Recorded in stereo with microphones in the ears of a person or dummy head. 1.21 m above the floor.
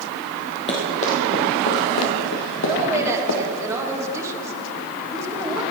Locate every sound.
0.7 s running footsteps: 30° left (ahead or behind), 3 m; by 3.7 s 70° left (ahead or behind), 3 m
2.7 s a woman speaking: 15° right (ahead or behind), 1.8 m